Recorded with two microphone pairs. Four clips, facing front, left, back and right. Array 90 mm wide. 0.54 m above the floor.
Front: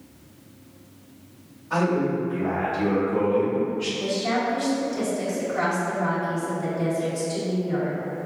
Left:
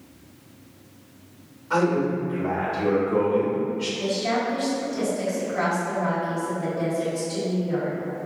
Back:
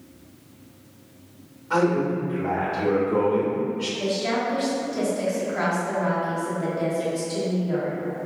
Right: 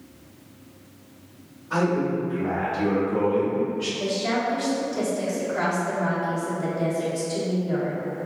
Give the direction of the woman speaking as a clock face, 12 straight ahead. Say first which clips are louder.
Even, even; 5 o'clock.